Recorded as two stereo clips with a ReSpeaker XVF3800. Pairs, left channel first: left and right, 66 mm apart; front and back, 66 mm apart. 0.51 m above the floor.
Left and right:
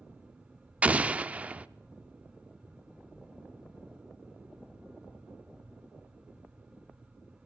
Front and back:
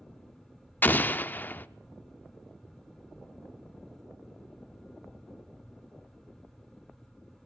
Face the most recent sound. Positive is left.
turn(degrees=-35)